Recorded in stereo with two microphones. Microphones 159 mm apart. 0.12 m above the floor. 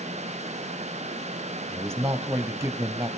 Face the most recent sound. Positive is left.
turn(degrees=-15)  # may be behind; listen again after turning